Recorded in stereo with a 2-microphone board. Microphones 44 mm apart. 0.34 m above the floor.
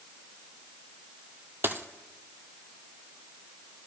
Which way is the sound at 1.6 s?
60° right (ahead or behind).